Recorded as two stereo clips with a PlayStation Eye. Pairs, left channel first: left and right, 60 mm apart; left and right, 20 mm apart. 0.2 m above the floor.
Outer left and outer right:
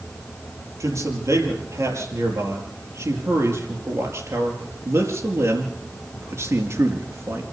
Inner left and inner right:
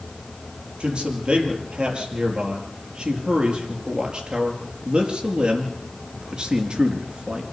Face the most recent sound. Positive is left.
turn(degrees=-50)  # may be behind; listen again after turning